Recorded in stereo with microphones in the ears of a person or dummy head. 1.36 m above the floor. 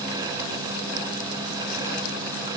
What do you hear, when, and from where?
Only background noise.